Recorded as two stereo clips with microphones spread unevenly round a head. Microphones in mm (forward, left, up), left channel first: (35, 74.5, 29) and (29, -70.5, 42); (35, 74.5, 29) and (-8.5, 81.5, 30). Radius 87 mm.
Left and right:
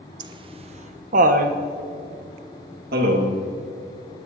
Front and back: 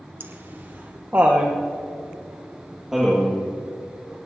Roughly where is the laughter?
Behind right.